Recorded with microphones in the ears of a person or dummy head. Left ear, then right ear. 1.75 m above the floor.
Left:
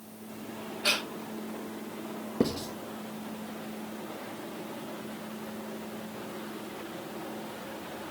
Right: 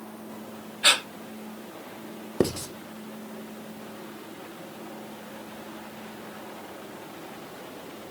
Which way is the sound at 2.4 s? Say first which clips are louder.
Right 4 dB; 50° right (ahead or behind).